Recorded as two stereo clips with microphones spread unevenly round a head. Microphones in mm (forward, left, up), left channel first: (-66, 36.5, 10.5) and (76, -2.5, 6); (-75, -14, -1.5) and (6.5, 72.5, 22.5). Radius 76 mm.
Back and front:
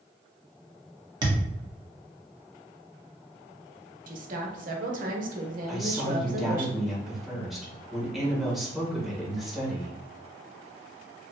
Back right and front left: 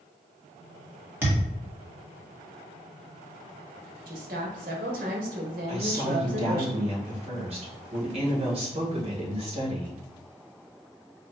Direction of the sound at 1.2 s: 15° left.